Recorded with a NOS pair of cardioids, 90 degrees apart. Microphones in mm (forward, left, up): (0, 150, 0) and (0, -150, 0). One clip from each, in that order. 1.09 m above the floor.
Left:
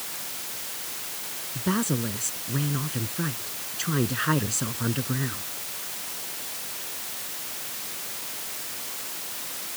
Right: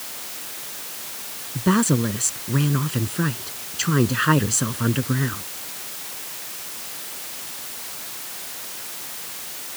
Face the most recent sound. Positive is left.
turn(degrees=-40)